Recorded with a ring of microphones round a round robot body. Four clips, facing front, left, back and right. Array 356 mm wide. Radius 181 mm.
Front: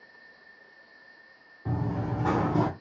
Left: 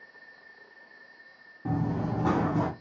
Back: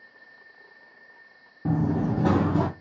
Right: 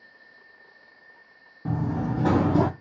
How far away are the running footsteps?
About 1.2 m.